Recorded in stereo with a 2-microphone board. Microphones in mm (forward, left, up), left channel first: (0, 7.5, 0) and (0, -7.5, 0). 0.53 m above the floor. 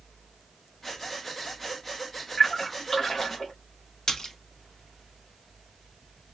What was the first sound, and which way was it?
Breathing, 20° left (ahead or behind).